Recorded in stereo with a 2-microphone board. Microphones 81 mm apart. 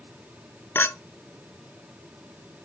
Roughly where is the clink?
Left.